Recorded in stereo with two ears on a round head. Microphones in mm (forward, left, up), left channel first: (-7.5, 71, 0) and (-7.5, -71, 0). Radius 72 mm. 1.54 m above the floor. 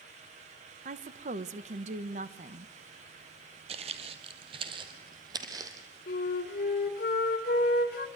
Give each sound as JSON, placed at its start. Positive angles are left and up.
{"t": 0.8, "sound": "a woman speaking", "side_deg": -45, "distance_m": 1.4}
{"t": 3.7, "sound": "footsteps", "side_deg": -40, "distance_m": 1.9}
{"t": 6.1, "sound": "a flute", "side_deg": 55, "distance_m": 2.5}